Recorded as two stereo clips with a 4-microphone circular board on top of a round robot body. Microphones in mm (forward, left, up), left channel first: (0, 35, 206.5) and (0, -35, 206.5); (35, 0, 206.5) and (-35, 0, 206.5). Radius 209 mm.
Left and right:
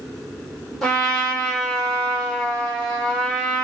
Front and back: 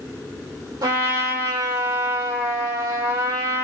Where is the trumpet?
175° left, 4.5 m.